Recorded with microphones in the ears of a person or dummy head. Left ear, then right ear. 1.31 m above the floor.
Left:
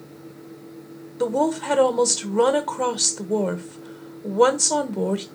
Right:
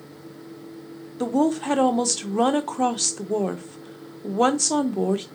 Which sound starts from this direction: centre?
A woman speaking, at 1.2 s.